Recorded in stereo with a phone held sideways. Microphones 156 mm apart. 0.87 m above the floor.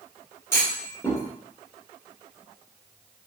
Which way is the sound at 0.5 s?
15° left (ahead or behind).